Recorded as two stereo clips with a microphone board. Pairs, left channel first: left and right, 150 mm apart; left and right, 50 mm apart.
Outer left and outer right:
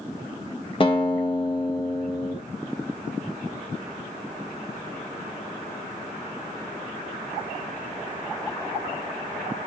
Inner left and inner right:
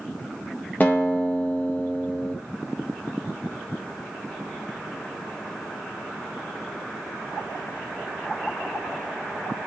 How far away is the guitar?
About 1.2 m.